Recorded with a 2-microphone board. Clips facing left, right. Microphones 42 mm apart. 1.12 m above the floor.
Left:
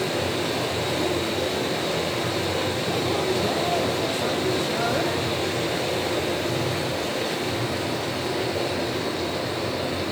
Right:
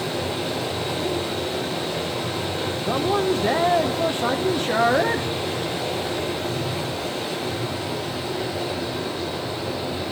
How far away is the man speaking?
About 0.8 m.